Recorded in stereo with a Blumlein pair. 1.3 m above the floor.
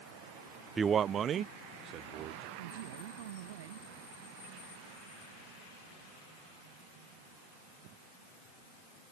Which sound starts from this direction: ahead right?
A man speaking, at 2.6 s.